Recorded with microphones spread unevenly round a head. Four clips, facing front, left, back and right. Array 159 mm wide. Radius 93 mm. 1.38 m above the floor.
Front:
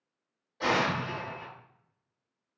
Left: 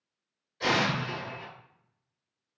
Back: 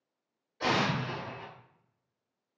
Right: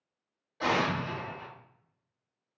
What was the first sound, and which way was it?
An explosion, 70° right.